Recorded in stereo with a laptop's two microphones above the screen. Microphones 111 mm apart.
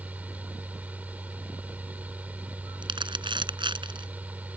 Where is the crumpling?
50° right (ahead or behind).